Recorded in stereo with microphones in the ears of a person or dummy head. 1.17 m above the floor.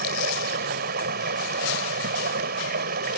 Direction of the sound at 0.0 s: 55° right (ahead or behind).